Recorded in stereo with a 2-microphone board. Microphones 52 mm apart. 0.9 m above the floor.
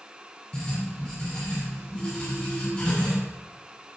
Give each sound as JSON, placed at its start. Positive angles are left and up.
{"t": 0.5, "sound": "writing", "side_deg": 25, "distance_m": 8.0}